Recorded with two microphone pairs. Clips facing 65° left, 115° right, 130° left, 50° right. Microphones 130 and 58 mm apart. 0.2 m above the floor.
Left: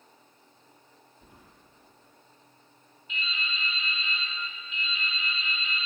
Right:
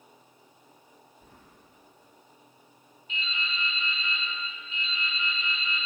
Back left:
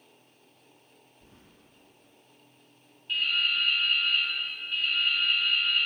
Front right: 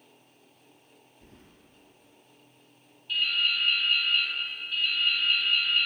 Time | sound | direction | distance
1.2 | keys jangling | 10° right | 3 m
3.1 | dripping | 170° right | 2.5 m